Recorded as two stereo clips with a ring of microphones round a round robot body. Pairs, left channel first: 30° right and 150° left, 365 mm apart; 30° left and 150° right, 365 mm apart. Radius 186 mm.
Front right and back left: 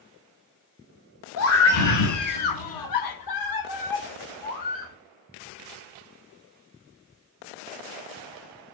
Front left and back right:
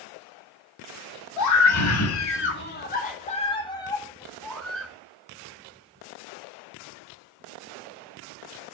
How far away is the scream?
About 1.4 m.